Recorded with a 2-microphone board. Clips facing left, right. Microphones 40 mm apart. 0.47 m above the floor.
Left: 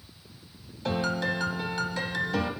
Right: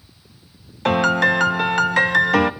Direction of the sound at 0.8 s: 80° right.